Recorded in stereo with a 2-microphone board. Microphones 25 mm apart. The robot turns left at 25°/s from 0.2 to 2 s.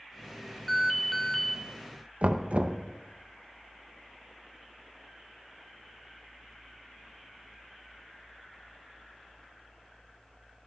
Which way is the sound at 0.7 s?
Centre (ahead or behind).